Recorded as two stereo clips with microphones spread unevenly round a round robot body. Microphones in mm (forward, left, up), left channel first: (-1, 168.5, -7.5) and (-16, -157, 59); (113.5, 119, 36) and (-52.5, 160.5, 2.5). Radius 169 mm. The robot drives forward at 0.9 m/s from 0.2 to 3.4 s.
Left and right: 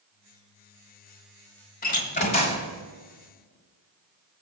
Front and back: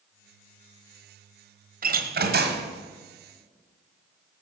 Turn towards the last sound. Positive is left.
turn(degrees=165)